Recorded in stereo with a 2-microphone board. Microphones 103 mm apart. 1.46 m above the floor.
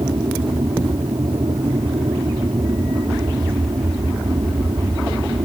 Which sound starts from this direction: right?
An aircraft, at 0.0 s.